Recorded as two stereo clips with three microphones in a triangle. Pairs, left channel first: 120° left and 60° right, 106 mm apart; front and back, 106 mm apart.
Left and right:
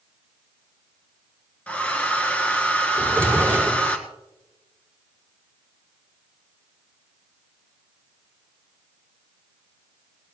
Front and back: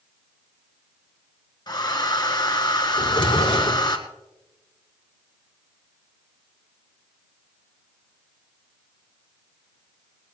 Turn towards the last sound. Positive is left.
turn(degrees=45)